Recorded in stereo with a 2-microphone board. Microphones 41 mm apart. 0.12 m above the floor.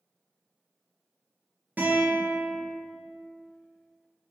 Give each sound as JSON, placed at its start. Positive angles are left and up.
{"t": 1.8, "sound": "a guitar", "side_deg": -50, "distance_m": 0.9}